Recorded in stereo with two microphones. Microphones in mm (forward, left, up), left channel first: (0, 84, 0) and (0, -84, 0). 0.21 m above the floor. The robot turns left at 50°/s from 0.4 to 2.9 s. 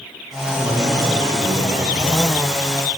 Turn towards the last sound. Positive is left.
turn(degrees=-135)